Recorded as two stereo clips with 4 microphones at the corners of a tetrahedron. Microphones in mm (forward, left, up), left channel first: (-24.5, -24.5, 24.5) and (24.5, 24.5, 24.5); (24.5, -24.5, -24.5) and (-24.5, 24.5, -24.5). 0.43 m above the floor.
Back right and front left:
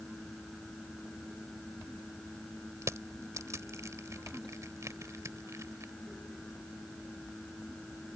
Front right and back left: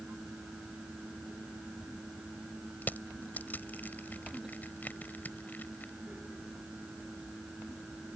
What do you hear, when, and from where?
2.8 s crushing: 15° left